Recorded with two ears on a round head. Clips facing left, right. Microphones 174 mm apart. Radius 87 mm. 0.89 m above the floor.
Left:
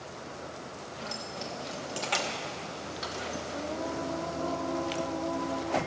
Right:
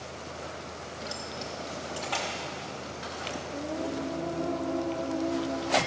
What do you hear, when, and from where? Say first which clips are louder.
1.0 s keys jangling: even; 10° right (ahead or behind), 1.0 m; by 3.4 s 55° left (ahead or behind), 1.7 m
3.5 s singing: right 3 dB; 20° right (ahead or behind), 0.7 m